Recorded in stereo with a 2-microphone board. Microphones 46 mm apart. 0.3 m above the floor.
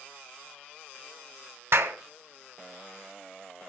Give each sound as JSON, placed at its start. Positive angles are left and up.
{"t": 1.7, "sound": "a clap", "side_deg": -65, "distance_m": 2.0}